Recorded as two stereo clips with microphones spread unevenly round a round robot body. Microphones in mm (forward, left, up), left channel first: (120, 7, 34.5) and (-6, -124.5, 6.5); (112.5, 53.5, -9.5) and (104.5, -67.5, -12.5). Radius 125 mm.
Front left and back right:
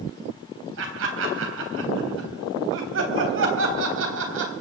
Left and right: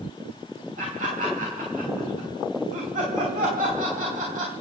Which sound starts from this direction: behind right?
Laughter, at 0.8 s.